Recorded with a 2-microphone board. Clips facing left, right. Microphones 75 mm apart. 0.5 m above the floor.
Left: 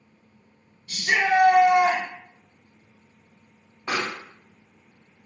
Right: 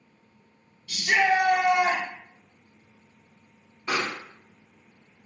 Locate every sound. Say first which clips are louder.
0.9 s a shout: even; 45° left (ahead or behind), 1.7 m; by 2.0 s 60° left (ahead or behind), 2 m
3.9 s a pop: even; 60° left (ahead or behind), 1.8 m